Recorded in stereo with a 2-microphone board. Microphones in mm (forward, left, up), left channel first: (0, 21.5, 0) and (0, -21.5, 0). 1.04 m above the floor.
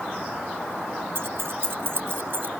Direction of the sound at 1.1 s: 65° right (ahead or behind).